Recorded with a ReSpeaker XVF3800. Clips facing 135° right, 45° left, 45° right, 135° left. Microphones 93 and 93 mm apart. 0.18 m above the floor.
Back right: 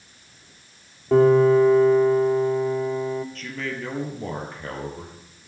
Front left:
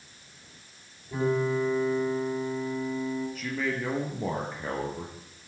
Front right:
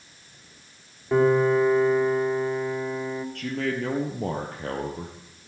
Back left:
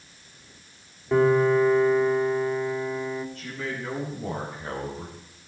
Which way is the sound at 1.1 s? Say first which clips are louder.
Back right 12 dB, even; 130° right.